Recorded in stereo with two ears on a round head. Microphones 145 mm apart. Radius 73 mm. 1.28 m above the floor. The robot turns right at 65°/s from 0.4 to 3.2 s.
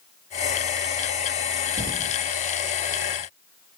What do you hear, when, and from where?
1.8 s a thud: 50° right (ahead or behind), 1.9 m; by 2.2 s 60° right (ahead or behind), 1.9 m